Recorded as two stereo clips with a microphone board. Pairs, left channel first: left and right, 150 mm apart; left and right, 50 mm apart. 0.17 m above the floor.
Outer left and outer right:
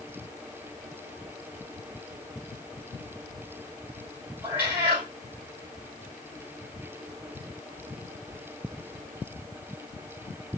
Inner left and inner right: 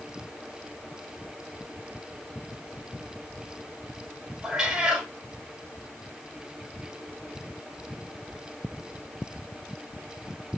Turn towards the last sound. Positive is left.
turn(degrees=-10)  # may be behind; listen again after turning